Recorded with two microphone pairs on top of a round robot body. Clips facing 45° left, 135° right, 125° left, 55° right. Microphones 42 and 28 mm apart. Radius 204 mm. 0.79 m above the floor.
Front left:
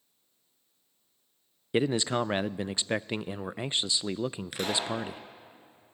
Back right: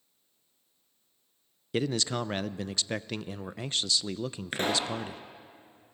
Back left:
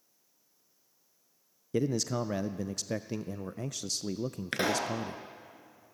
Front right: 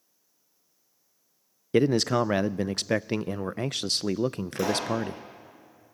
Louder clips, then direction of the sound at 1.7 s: Front left 3 dB, front right 8 dB; 25° right.